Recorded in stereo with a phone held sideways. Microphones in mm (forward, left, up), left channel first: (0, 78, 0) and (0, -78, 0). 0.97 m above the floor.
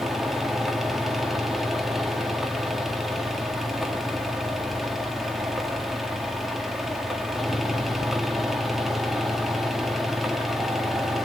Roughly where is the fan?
Centre.